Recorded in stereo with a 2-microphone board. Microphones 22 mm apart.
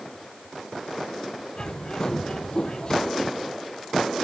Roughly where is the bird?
Left.